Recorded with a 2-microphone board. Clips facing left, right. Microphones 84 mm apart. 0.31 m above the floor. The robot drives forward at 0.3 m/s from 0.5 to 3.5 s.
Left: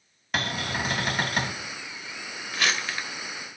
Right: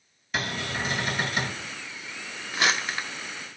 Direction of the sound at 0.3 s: 60° left (ahead or behind).